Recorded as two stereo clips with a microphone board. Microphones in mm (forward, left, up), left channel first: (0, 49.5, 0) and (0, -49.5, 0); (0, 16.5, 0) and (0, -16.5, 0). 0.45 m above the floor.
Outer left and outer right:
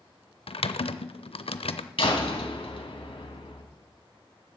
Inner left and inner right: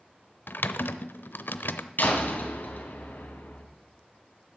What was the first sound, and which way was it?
Typing on a keyboard, 70° left (ahead or behind).